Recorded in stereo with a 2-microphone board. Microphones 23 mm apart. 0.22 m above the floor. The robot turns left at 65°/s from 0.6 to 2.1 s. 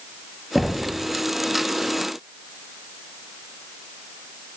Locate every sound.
0.6 s knocking: 5° right (ahead or behind), 0.7 m; by 1.0 s 5° left (ahead or behind), 0.7 m